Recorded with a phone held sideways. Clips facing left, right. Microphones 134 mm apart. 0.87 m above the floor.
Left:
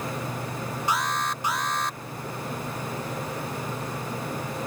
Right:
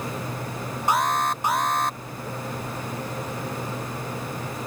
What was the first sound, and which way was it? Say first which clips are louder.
An alarm: right 6 dB; 50° right (ahead or behind).